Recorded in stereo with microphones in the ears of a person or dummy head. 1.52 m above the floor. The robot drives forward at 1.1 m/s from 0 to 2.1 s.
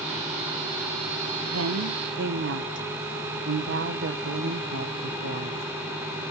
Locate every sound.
1.4 s a woman speaking: 80° right, 1.3 m; by 5.6 s 60° right (ahead or behind), 1.5 m